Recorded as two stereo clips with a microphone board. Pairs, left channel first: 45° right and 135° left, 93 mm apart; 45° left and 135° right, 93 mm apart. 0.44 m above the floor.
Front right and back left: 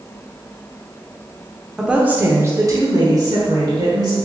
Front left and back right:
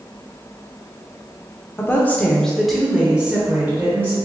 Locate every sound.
1.8 s a woman speaking: 60° left, 0.8 m; by 4.2 s 165° left, 1.4 m